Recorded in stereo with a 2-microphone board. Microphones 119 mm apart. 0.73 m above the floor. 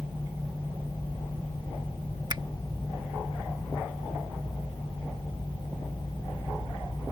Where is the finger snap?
35° right (ahead or behind).